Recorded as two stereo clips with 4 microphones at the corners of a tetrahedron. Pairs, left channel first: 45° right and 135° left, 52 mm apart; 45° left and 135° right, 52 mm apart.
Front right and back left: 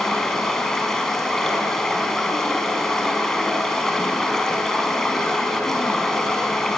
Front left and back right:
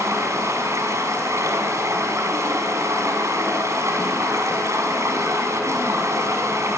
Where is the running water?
125° right, 5 m.